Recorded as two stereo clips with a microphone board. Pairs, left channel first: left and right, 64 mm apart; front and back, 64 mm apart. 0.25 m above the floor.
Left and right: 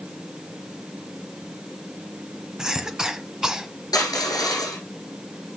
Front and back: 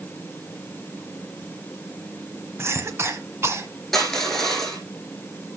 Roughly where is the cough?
Behind.